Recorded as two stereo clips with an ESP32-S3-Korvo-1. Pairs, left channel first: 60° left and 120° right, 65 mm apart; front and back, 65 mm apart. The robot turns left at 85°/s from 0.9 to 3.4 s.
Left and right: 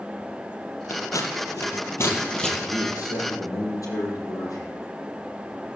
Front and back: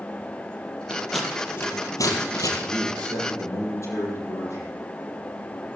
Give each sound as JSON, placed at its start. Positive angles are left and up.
{"t": 0.9, "sound": "scissors", "azimuth_deg": 110, "distance_m": 3.5}
{"t": 2.6, "sound": "a man speaking", "azimuth_deg": 105, "distance_m": 5.5}